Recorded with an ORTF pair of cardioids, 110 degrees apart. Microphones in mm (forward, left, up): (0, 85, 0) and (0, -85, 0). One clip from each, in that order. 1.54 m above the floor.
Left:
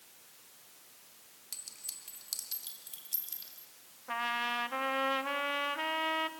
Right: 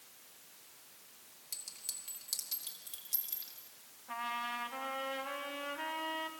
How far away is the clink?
About 3 m.